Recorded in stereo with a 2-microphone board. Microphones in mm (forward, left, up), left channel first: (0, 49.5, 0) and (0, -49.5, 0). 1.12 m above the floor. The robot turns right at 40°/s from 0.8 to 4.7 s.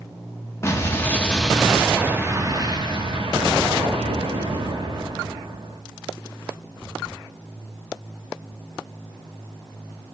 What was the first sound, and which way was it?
An explosion, 150° left.